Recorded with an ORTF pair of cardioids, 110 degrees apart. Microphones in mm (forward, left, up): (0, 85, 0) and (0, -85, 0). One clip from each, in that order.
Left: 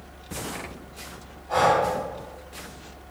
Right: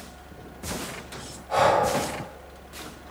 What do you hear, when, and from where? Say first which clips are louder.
1.5 s breathing: even; 5° left, 1.5 m